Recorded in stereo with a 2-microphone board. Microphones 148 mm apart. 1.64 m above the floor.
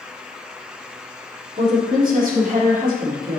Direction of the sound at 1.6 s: 70° right (ahead or behind).